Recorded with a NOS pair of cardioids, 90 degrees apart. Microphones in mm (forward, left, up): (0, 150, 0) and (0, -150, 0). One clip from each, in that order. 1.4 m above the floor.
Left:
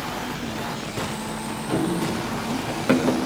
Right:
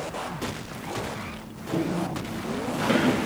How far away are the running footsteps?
About 9 m.